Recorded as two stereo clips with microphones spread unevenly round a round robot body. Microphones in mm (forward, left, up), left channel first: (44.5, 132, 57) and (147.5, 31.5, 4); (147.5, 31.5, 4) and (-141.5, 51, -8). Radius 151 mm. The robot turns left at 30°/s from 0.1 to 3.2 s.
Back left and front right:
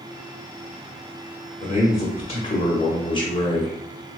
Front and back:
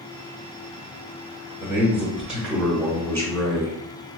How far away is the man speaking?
About 1.2 m.